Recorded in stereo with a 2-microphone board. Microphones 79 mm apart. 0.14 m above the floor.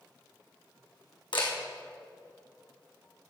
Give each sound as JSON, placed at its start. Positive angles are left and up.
{"t": 1.3, "sound": "a camera shutter", "side_deg": 85, "distance_m": 3.0}